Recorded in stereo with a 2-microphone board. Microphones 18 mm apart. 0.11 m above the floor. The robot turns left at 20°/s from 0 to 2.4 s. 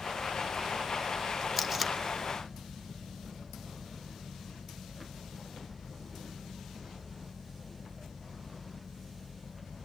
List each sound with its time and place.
1.6 s tape being pulled: 10° right (ahead or behind), 0.6 m; by 2.0 s 15° right (ahead or behind), 0.6 m